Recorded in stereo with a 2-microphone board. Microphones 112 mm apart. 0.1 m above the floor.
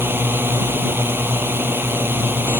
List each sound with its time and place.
0.0 s a drone: 20° right (ahead or behind)